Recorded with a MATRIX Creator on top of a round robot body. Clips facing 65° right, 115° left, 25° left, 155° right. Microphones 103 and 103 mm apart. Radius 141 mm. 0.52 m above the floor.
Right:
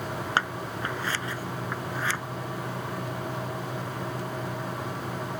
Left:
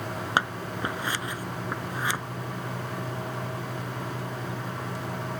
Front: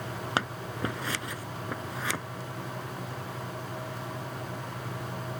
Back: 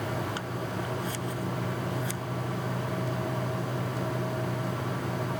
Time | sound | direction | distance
0.4 | scissors | 40° left | ?